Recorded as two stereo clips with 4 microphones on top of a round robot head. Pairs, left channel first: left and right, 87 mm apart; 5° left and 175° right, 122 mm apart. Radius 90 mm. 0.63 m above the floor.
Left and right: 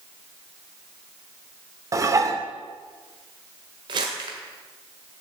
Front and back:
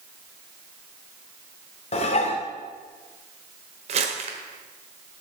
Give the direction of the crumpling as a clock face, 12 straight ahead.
5 o'clock.